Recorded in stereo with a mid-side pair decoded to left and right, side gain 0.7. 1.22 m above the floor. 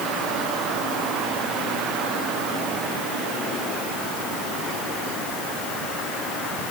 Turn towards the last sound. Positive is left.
No sound to turn to.